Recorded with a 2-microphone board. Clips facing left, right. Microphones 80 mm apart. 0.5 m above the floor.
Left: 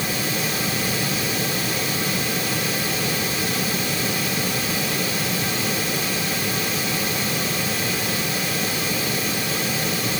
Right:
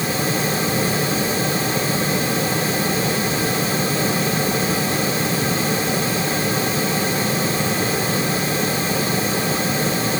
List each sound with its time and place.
Only background noise.